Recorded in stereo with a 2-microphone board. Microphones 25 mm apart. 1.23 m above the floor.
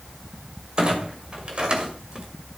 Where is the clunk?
35° right (ahead or behind), 1.9 m.